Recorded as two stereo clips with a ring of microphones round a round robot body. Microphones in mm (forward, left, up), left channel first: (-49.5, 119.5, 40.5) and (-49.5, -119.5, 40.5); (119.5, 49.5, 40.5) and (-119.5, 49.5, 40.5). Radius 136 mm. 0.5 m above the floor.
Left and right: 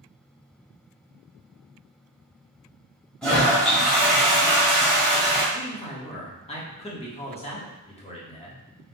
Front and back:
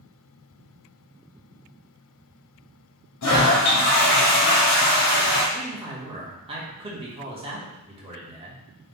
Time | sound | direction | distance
3.2 | a toilet flushing | straight ahead | 1.4 m
5.5 | a man speaking | 130° left | 1.4 m